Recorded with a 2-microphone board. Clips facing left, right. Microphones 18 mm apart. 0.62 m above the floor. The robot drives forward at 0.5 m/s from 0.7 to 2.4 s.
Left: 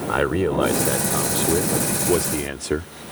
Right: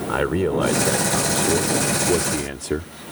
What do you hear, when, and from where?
0.1 s a man speaking: 10° left (ahead or behind); by 2.9 s 15° left (ahead or behind)